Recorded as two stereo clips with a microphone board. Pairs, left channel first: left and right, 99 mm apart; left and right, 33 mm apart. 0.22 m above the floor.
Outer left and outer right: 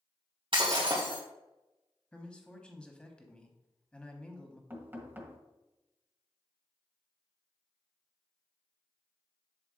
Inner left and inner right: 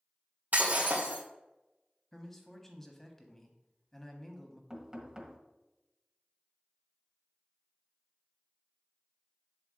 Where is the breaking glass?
60° right (ahead or behind), 2.5 m.